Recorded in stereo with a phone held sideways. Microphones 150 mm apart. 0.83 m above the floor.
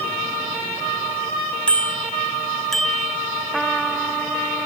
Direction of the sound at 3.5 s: Centre (ahead or behind).